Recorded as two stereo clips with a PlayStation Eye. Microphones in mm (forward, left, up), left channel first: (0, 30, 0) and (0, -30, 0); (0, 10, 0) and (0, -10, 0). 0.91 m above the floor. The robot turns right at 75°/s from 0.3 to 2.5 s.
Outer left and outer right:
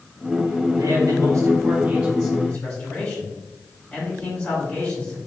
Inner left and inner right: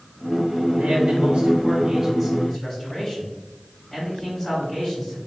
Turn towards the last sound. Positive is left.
turn(degrees=30)